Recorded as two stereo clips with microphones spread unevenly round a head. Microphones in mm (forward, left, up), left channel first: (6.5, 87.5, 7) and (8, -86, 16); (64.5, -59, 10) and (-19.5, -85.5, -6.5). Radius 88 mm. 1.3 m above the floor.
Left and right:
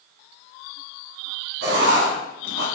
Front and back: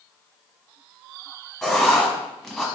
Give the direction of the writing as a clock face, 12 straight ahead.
2 o'clock.